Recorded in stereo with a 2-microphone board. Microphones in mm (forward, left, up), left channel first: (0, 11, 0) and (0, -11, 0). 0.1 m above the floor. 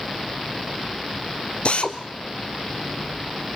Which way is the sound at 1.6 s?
55° left (ahead or behind).